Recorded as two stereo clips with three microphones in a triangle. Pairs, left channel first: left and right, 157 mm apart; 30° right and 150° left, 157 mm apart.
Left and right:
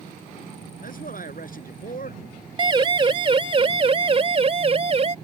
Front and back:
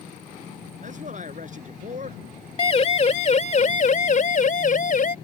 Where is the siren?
50° right; by 5.1 s 45° right.